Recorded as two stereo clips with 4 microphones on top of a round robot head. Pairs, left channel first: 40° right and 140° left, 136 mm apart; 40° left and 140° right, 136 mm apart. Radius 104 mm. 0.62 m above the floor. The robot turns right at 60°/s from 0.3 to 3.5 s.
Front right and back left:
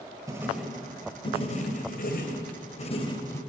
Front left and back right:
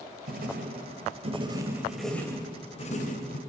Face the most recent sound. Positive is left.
turn(degrees=40)